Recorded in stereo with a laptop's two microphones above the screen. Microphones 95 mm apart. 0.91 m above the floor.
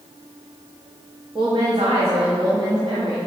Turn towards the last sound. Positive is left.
turn(degrees=-60)  # may be behind; listen again after turning